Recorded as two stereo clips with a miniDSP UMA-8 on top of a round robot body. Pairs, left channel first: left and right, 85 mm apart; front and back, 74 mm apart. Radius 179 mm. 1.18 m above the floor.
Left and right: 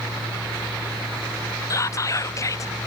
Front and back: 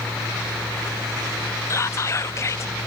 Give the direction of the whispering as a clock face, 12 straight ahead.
11 o'clock.